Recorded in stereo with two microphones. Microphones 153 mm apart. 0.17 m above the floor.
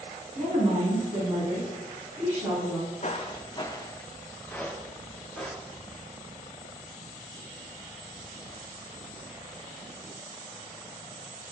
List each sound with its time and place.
0.3 s a woman speaking: 35° right (ahead or behind), 1.5 m; by 2.8 s 15° right (ahead or behind), 1.6 m
3.0 s footsteps: 50° left (ahead or behind), 0.6 m; by 6.0 s centre (ahead or behind), 2.0 m